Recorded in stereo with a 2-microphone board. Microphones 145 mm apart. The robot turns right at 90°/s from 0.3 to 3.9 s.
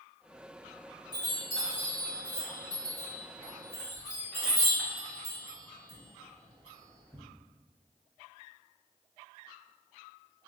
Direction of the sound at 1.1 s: 70° left (ahead or behind).